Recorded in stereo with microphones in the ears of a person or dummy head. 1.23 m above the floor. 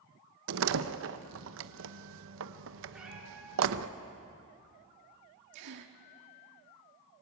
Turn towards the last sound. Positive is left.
turn(degrees=-65)  # may be behind; listen again after turning